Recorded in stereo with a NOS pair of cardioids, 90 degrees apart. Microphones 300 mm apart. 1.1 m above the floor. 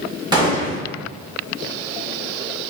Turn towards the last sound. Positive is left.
turn(degrees=-15)